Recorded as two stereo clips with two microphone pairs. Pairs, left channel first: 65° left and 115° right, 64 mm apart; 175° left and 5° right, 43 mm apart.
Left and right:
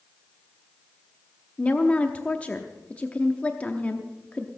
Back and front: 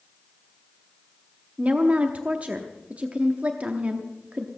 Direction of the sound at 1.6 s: 10° left.